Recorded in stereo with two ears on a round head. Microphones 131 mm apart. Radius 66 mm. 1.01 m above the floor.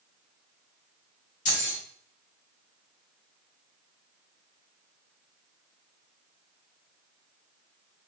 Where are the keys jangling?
50° left (ahead or behind), 1.7 m.